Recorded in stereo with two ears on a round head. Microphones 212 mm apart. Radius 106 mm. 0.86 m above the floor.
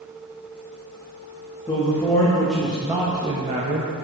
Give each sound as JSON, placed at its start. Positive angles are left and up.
{"t": 1.7, "sound": "a man speaking", "side_deg": 20, "distance_m": 1.5}